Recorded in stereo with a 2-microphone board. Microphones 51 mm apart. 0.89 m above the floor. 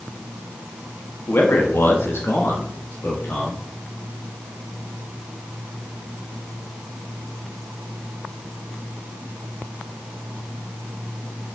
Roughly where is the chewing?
I don't hear chewing.